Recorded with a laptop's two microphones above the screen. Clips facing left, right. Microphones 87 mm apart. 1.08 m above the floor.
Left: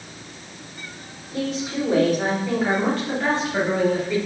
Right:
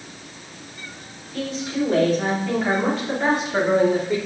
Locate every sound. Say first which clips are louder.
1.3 s a woman speaking: even; 25° left (ahead or behind), 4 m; by 4.2 s 30° right (ahead or behind), 3.5 m